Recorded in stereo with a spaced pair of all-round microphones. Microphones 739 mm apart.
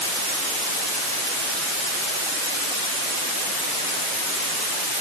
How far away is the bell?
No bell in this recording.